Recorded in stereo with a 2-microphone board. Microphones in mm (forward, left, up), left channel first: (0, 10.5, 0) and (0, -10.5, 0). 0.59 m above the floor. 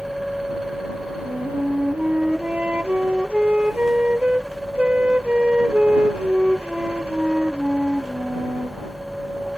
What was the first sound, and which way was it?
A flute, 75° right (ahead or behind).